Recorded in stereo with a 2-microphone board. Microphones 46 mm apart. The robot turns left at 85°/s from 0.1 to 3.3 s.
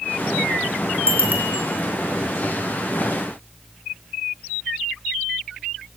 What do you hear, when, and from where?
1.1 s a bicycle bell: 60° right (ahead or behind), 5 m; by 1.6 s 15° right (ahead or behind), 5 m